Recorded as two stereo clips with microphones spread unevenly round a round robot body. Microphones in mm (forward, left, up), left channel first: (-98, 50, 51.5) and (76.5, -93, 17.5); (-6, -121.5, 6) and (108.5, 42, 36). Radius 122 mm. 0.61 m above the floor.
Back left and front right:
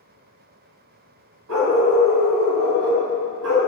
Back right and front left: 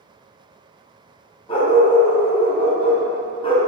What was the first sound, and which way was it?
A dog barking, 60° right.